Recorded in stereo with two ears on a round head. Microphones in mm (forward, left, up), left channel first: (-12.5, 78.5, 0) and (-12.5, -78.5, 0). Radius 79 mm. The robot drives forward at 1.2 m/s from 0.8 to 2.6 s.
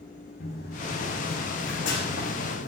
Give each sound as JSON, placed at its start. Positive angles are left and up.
{"t": 0.4, "sound": "running footsteps", "side_deg": 55, "distance_m": 5.0}